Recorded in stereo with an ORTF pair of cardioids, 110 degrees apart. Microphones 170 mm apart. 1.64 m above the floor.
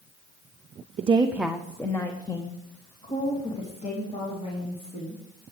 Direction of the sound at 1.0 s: 40° right.